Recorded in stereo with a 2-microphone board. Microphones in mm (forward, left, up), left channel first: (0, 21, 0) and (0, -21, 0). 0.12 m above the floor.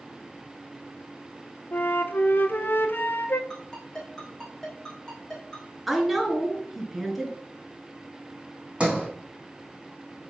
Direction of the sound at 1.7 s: 50° left (ahead or behind).